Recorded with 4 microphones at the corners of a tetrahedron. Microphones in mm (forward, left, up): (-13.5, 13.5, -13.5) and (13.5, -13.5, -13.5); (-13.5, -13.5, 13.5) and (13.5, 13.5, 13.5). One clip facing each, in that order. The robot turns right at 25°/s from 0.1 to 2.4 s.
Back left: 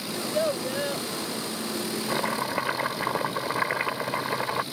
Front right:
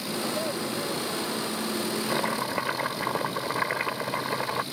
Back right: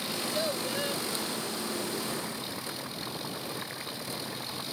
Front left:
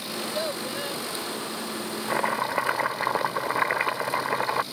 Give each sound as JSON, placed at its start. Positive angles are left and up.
{"t": 0.1, "sound": "a child speaking", "azimuth_deg": 120}
{"t": 2.1, "sound": "chopping", "azimuth_deg": 45}